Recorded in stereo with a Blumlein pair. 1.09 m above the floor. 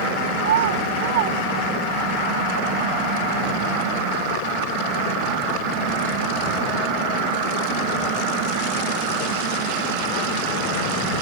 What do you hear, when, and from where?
0.4 s a child speaking: 60° right; by 2.1 s 45° right